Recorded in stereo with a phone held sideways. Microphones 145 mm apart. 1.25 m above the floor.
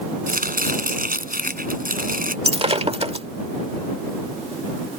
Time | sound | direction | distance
0.3 | chopping | 85° right | ?
2.5 | breaking glass | 45° right (ahead or behind) | ?